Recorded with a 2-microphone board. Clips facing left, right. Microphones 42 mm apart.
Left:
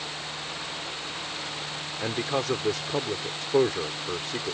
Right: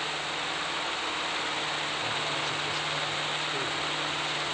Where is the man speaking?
70° left (ahead or behind).